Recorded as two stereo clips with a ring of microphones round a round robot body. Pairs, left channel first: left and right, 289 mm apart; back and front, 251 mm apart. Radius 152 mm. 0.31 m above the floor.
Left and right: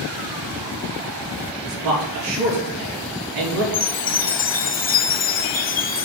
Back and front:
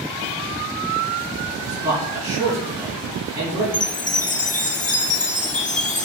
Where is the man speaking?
80° right, 5 m.